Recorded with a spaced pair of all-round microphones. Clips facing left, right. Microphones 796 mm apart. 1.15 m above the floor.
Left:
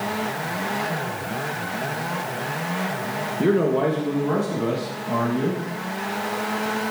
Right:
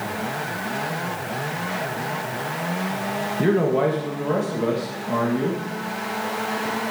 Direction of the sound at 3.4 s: 35° right (ahead or behind).